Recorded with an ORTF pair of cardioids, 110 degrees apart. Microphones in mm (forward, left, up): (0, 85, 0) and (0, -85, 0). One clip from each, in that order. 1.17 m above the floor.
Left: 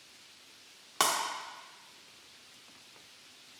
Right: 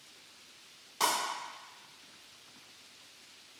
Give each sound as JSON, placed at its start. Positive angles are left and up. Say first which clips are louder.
{"t": 1.0, "sound": "breaking glass", "louder": "left 1 dB", "azimuth_deg": 65, "distance_m": 1.2}